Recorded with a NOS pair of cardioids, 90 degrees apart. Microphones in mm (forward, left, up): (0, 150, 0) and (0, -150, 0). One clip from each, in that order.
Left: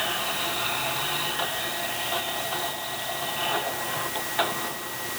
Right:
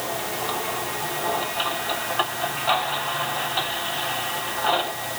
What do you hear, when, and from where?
Only background noise.